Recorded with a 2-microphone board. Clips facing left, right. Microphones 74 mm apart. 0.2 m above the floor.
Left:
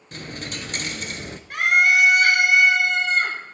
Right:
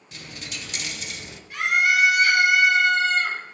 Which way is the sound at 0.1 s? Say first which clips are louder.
Left 6 dB; 45° left (ahead or behind).